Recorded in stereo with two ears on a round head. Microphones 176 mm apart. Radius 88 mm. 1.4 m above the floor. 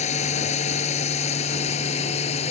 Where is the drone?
35° left (ahead or behind).